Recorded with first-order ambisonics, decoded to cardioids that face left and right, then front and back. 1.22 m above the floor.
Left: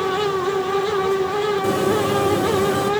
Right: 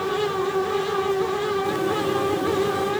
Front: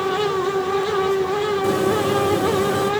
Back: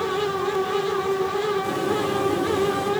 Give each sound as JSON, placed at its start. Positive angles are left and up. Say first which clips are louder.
{"t": 1.6, "sound": "a bird", "louder": "left 4 dB, front 5 dB", "azimuth_deg": 50, "distance_m": 1.4}